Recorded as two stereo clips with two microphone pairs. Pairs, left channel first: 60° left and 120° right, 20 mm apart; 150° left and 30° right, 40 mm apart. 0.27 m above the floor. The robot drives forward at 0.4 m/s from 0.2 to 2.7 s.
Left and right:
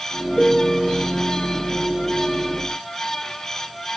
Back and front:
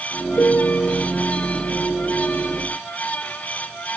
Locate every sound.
0.4 s a piano: 145° left; by 1.1 s 150° left